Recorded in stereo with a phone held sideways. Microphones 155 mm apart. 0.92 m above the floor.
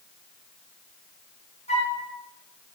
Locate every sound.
1.7 s a flute: 45° left (ahead or behind), 0.7 m